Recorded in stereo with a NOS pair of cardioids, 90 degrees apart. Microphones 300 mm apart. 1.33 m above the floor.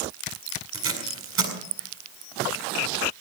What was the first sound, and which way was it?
Tape being pulled, 45° right.